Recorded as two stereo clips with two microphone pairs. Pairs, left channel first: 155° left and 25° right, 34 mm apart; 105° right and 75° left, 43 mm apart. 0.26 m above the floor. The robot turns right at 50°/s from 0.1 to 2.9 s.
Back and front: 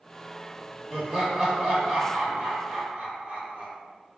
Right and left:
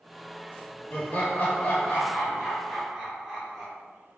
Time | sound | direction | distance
0.9 | laughter | 110° right | 1.5 m